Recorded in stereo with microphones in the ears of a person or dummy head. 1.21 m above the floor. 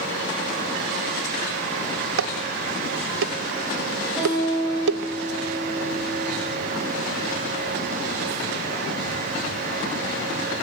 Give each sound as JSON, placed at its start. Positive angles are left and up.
{"t": 2.2, "sound": "dishes clattering", "side_deg": -75, "distance_m": 0.7}
{"t": 4.2, "sound": "a guitar", "side_deg": 10, "distance_m": 10.0}